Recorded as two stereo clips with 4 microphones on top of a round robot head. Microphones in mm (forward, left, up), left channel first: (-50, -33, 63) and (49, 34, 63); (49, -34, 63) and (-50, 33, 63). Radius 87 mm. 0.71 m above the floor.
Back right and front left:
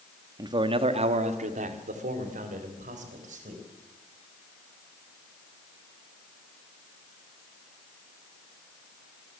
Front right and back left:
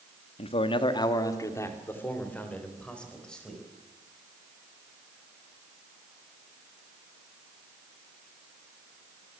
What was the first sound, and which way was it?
A man speaking, 15° right.